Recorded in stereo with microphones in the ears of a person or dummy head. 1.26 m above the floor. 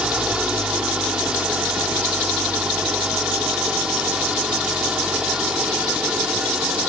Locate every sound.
0.0 s an engine running: 10° right (ahead or behind)